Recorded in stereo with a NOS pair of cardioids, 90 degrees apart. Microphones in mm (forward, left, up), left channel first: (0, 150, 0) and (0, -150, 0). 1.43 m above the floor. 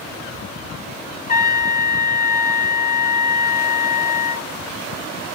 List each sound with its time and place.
1.3 s a trumpet: 35° left, 2.5 m